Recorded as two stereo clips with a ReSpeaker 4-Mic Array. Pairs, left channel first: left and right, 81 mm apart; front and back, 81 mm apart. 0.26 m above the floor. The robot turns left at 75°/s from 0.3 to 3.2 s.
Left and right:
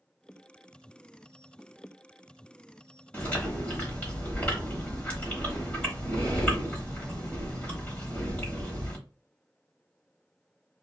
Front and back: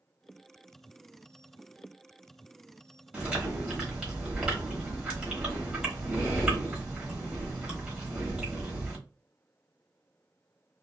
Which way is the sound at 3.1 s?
135° left.